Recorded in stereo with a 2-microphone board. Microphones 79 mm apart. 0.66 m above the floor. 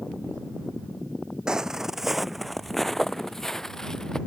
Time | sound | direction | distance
1.5 | footsteps | 10° right (ahead or behind) | ?